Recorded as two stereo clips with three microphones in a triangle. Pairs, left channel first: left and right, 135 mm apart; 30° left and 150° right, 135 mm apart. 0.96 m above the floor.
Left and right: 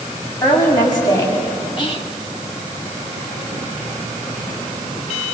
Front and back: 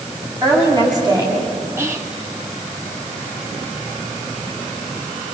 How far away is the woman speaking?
About 6 m.